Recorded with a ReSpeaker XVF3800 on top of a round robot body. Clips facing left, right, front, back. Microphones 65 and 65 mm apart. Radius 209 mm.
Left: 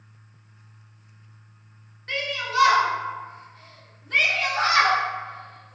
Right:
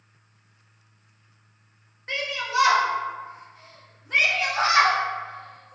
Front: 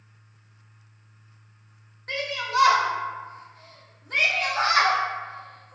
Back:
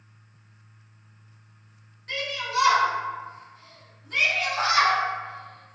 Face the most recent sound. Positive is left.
turn(degrees=-20)